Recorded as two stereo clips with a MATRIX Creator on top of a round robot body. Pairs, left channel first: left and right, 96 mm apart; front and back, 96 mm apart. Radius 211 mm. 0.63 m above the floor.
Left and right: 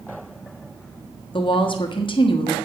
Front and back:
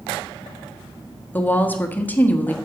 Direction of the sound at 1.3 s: 70° left.